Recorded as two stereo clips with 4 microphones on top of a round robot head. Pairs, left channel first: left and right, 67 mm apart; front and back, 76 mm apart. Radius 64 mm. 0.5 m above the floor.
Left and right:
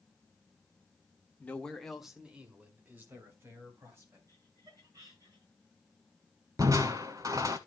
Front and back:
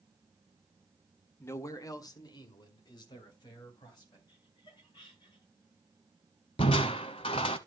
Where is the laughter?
40° right, 7 m.